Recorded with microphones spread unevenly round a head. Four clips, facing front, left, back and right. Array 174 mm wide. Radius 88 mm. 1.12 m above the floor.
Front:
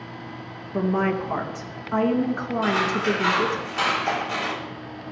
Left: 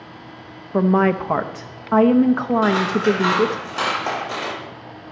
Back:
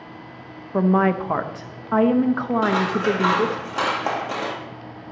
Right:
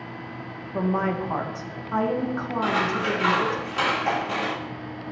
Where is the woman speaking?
105° left, 0.9 m.